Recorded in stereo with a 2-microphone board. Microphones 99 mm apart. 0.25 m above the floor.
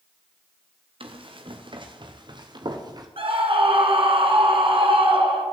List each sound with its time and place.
1.0 s running footsteps: 65° right (ahead or behind), 3 m; by 3.1 s 45° right (ahead or behind), 3 m
3.2 s a scream: 65° right (ahead or behind), 3 m